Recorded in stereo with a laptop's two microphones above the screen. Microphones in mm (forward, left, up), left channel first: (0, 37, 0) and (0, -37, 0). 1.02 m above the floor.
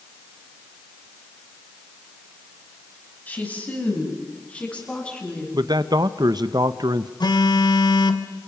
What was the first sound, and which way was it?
A woman speaking, 25° left (ahead or behind).